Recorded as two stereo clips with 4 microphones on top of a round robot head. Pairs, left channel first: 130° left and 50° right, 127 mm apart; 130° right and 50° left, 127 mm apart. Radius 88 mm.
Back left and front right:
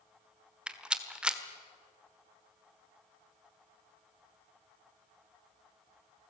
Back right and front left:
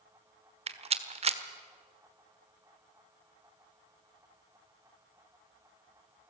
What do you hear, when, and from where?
0.7 s a rattle: 35° left, 1.5 m